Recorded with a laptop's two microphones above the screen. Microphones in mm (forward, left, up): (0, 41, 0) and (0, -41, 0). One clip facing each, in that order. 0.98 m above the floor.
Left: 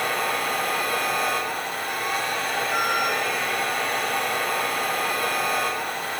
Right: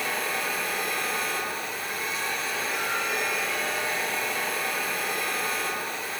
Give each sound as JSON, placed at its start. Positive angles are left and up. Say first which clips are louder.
{"t": 0.0, "sound": "a machine running", "louder": "left 5 dB", "side_deg": 65, "distance_m": 4.0}